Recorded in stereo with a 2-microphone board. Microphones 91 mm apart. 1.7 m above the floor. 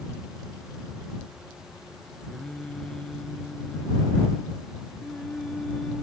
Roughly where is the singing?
Centre.